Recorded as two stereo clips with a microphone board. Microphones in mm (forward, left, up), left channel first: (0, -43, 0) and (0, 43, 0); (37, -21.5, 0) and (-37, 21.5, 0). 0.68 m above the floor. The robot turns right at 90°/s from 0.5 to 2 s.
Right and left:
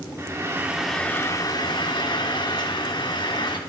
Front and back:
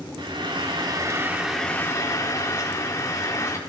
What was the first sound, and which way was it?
Frying, 145° left.